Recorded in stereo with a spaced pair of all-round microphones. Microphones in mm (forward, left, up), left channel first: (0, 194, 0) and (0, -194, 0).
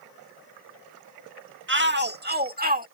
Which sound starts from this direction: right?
A shout, at 1.7 s.